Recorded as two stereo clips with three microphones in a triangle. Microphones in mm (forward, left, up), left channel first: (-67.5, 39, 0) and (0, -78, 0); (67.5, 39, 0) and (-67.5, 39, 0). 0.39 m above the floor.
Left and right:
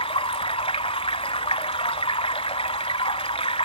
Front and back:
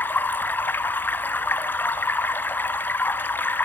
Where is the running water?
75° left, 0.8 m.